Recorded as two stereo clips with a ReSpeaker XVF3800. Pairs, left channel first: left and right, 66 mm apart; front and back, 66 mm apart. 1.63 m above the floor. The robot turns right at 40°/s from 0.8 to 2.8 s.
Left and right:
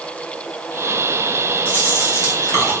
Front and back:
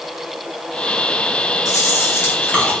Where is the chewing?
25° left, 1.2 m; by 2.7 s 70° left, 1.2 m.